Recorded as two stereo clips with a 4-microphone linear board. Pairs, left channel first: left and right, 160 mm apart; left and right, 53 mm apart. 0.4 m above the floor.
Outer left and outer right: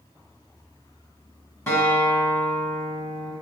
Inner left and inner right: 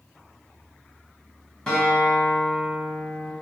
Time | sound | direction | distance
1.7 | a guitar | 15° left (ahead or behind) | 1.4 m